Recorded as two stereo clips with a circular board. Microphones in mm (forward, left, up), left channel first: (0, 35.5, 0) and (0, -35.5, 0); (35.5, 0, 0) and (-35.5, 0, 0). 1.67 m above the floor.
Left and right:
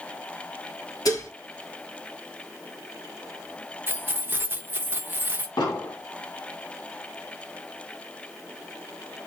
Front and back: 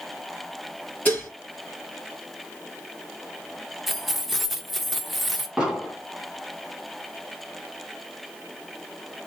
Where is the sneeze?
No sneeze in this recording.